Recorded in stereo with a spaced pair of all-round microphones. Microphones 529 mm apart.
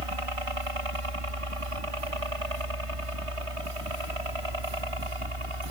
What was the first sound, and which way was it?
A helicopter, 70° right (ahead or behind).